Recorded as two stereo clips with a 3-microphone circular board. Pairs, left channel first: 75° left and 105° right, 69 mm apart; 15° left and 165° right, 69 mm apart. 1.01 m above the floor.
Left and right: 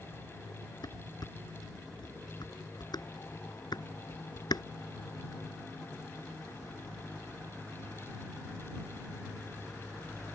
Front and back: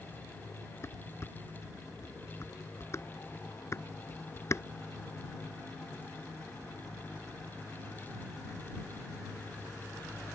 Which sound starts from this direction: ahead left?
Dishes clattering, at 0.8 s.